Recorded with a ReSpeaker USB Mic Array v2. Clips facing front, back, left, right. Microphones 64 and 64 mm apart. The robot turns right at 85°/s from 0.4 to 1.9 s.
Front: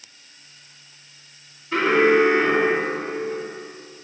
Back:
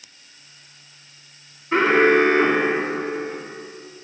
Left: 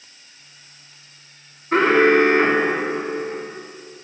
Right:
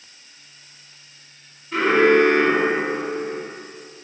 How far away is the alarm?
About 2.5 m.